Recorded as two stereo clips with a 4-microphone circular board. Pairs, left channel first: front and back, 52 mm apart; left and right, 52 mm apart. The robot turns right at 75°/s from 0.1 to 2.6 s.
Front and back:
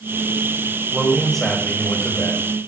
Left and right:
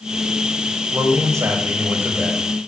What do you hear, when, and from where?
0.9 s a man speaking: 115° right, 4 m; by 2.5 s straight ahead, 4 m